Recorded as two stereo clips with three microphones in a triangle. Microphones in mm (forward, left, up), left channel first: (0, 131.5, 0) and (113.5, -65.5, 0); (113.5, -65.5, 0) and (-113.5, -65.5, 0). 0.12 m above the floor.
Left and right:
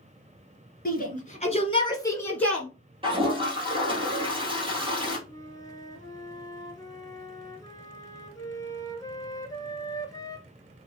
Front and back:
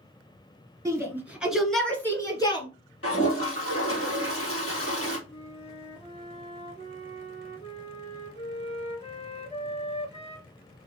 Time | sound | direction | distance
0.8 | a shout | 110° left | 1.8 m
3.0 | a toilet flushing | 5° left | 3 m
5.3 | a flute | 50° left | 0.9 m